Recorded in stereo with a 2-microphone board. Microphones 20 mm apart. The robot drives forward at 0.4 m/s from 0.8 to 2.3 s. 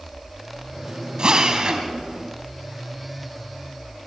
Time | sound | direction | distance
1.2 | a drill | 45° right (ahead or behind) | 2 m